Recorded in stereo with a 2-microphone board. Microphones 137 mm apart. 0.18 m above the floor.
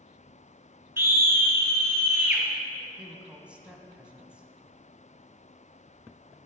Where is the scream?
15° right (ahead or behind), 2 m.